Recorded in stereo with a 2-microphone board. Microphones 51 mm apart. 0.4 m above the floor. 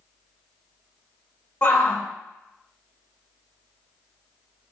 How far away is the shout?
About 1.4 m.